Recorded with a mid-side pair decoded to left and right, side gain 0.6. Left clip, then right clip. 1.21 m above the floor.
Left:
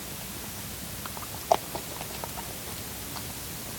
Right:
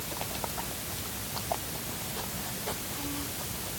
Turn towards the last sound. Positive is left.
No sound to turn to.